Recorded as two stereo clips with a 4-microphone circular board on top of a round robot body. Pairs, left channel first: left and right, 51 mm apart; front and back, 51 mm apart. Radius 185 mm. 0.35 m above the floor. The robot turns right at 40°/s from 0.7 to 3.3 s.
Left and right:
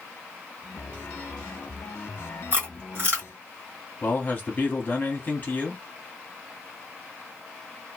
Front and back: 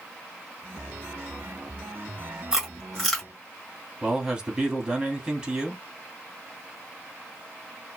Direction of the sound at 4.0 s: 120° left.